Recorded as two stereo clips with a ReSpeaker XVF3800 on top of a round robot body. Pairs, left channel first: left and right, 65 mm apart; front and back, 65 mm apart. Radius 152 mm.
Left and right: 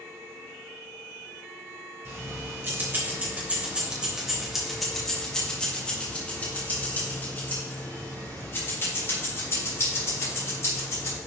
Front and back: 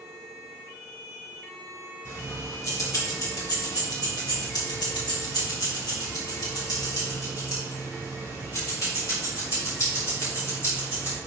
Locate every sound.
2.0 s keys jangling: 45° right, 3 m; by 11.2 s 45° left, 7 m